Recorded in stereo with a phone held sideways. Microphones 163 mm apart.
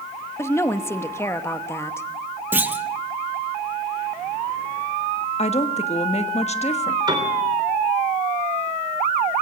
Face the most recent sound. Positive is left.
turn(degrees=-25)  # may be behind; listen again after turning